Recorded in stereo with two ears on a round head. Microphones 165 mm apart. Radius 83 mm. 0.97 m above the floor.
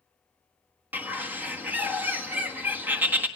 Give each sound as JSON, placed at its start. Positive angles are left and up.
{"t": 0.9, "sound": "a bird", "side_deg": -10, "distance_m": 1.4}